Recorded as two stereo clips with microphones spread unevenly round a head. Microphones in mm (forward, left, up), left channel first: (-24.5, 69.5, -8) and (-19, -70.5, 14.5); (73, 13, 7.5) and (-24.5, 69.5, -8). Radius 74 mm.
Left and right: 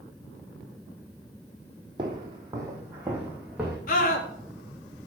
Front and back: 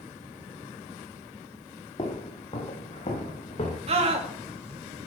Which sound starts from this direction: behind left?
A scream, at 3.9 s.